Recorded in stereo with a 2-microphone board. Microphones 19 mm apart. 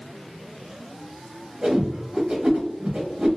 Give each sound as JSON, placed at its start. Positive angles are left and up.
{"t": 1.6, "sound": "a whoosh", "side_deg": -50, "distance_m": 0.9}